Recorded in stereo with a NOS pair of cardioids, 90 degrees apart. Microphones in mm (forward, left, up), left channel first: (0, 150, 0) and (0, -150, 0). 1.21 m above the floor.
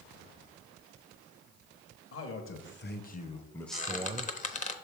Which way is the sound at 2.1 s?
50° left.